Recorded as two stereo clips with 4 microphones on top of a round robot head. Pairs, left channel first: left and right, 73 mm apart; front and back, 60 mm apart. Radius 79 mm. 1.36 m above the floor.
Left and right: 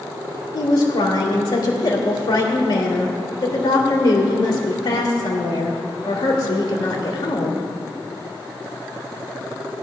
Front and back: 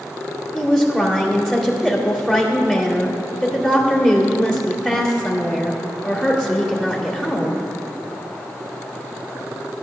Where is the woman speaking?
105° left, 2 m.